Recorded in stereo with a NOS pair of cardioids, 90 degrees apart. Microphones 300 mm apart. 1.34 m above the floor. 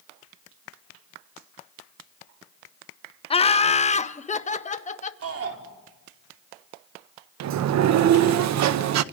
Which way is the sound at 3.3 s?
20° left.